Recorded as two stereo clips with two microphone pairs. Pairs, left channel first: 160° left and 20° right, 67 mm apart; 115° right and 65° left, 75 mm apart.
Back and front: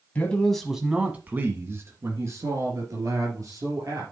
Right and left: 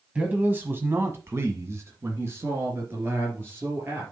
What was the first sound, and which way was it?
A man speaking, 120° left.